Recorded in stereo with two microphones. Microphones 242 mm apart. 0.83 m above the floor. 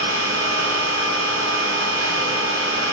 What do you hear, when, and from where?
0.0 s an engine running: 85° right, 5 m